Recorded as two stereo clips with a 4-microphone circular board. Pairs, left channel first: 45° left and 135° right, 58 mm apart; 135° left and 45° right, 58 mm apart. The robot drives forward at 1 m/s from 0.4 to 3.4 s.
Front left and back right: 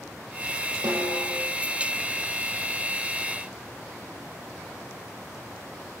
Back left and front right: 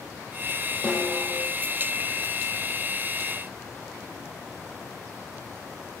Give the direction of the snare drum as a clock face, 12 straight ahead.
5 o'clock.